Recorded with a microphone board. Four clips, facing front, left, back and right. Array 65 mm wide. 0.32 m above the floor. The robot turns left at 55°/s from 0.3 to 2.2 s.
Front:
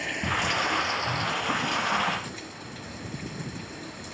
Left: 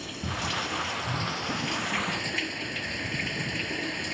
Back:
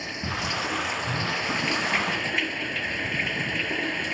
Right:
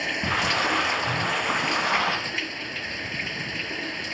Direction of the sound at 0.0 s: 70° right.